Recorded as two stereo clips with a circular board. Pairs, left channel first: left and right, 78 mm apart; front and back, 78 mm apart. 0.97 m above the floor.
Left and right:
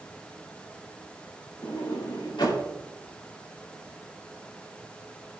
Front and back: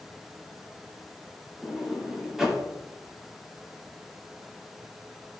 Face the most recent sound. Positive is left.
turn(degrees=100)